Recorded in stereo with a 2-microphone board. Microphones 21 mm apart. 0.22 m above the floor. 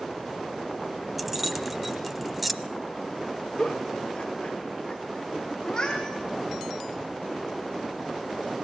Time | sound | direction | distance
1.2 | keys jangling | 5° right (ahead or behind) | 0.9 m
3.6 | a giggle | 25° left (ahead or behind) | 4 m
5.6 | a cat meowing | 30° left (ahead or behind) | 5.5 m